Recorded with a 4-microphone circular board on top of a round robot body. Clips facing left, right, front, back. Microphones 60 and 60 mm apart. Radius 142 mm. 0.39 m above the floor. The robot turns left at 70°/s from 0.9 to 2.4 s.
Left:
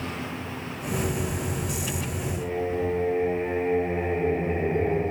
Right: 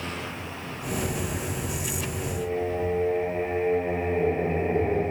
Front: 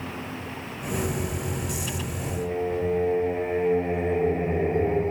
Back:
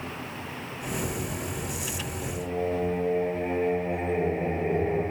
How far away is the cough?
I don't hear a cough.